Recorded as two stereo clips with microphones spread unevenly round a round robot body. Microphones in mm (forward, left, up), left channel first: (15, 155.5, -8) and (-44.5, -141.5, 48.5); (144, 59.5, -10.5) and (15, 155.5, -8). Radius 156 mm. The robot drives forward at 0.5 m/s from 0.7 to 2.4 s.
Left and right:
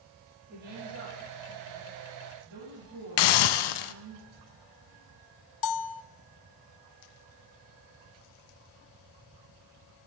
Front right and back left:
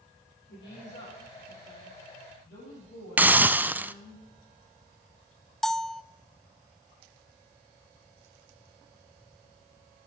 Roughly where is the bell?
Ahead left.